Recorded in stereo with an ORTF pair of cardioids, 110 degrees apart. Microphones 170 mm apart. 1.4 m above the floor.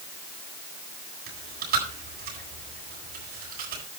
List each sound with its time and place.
1.3 s chewing: 65° right, 8 m